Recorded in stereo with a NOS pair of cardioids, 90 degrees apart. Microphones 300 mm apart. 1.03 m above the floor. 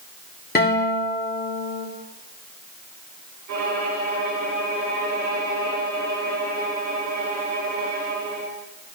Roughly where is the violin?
Ahead right.